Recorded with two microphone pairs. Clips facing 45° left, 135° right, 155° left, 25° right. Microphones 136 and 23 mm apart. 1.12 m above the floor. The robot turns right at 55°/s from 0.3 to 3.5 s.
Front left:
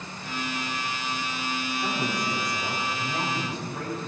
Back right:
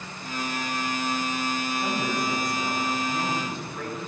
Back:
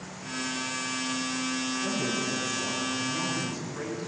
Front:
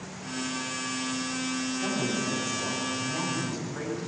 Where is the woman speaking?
55° right, 8.5 m; by 4.1 s 40° left, 8.5 m.